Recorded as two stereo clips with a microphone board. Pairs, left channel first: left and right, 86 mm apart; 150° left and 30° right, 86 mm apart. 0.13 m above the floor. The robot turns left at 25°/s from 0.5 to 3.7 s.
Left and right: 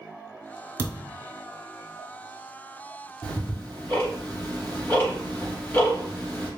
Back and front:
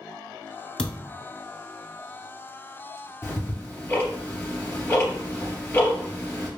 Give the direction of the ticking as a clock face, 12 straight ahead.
8 o'clock.